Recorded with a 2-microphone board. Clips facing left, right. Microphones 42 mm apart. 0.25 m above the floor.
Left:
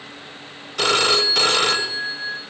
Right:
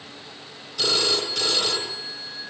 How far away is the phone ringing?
About 1.9 m.